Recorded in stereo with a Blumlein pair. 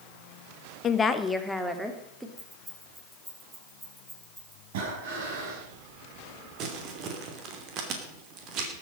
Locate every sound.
0.8 s a woman speaking: 25° left, 1.3 m; by 2.3 s 10° right, 3 m
2.4 s keys jangling: 5° right, 6.5 m
4.7 s breathing: 55° right, 5 m
6.6 s crumpling: 35° right, 3 m